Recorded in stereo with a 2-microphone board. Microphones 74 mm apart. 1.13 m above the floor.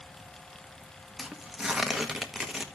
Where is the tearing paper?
5° right (ahead or behind), 1.0 m.